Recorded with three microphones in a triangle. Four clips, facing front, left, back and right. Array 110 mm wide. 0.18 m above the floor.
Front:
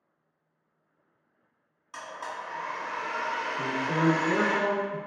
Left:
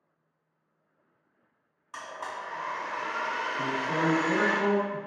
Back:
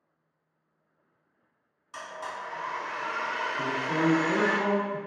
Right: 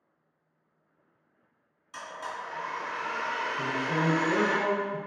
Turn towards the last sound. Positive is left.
turn(degrees=155)